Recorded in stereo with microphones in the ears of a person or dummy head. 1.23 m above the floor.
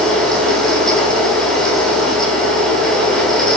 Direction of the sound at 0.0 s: Centre (ahead or behind).